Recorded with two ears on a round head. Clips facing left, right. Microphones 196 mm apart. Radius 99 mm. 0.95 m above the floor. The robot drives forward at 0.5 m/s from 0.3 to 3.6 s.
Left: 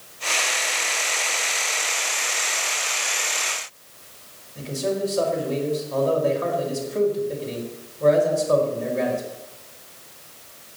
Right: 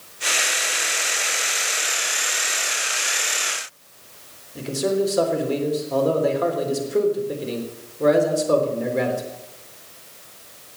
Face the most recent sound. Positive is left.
turn(degrees=-75)  # may be behind; listen again after turning